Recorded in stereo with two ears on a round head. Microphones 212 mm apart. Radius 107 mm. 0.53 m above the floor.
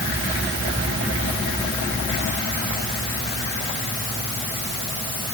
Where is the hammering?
I don't hear hammering.